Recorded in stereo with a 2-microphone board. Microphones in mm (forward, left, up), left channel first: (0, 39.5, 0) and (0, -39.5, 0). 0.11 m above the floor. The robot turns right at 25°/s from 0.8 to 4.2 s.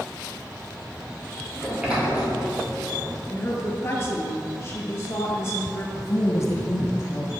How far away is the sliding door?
About 2.5 m.